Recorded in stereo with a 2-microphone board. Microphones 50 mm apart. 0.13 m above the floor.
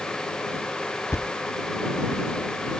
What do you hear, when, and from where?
1.1 s a thud: 75° left (ahead or behind)